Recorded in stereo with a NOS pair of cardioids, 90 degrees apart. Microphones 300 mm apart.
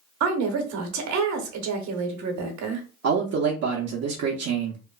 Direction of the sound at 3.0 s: 60° right.